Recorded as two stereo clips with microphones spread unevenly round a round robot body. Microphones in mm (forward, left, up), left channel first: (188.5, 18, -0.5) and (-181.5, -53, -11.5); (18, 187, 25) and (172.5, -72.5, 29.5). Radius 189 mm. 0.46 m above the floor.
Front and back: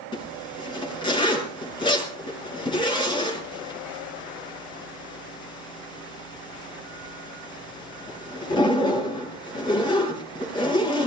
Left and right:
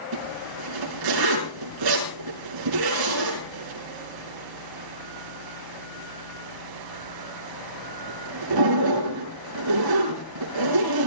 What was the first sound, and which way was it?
A zipper, 70° right.